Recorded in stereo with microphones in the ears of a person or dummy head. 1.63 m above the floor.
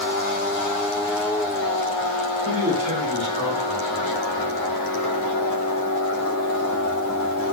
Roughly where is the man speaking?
Right.